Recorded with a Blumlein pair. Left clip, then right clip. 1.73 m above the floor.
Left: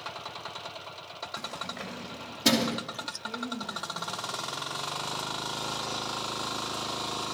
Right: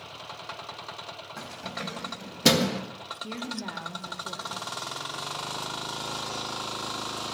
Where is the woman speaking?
40° right, 2 m.